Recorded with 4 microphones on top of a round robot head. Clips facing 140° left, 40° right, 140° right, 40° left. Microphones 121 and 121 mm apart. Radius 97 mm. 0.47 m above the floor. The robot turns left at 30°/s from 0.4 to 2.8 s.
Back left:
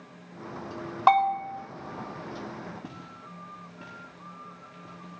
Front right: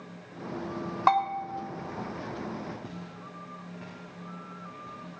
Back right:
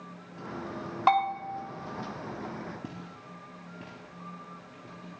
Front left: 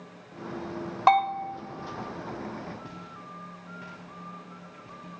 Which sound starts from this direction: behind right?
Footsteps, at 2.8 s.